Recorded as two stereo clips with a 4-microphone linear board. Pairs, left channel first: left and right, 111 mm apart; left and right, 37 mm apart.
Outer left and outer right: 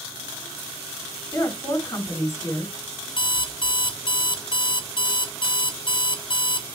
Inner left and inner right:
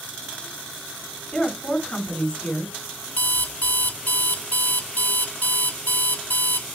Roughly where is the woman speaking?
Left.